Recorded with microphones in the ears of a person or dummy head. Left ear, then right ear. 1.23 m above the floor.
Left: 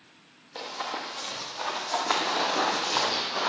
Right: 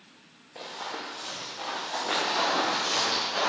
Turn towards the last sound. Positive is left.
turn(degrees=-10)  # may be behind; listen again after turning